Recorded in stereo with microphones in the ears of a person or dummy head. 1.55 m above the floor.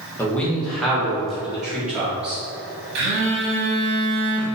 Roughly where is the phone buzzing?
Right.